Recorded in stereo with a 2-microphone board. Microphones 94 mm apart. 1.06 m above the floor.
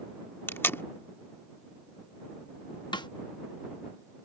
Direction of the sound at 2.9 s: 50° left (ahead or behind).